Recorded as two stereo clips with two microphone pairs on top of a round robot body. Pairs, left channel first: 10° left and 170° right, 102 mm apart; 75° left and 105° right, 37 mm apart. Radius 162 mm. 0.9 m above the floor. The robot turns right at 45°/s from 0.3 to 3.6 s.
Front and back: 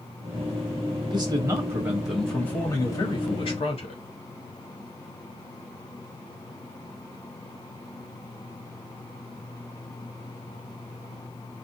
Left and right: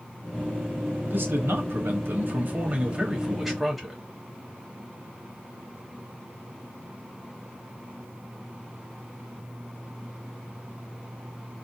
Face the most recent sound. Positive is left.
turn(degrees=-15)